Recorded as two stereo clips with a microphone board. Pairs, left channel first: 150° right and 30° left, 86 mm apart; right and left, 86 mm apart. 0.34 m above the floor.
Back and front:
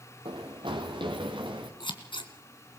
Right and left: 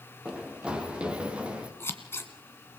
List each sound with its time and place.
0.2 s running footsteps: 10° left, 3.5 m
1.8 s scissors: 150° right, 2 m